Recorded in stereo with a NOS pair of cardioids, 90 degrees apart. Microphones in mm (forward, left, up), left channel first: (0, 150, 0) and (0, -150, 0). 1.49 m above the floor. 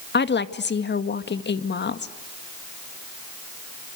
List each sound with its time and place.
0.1 s a woman speaking: 35° left, 2 m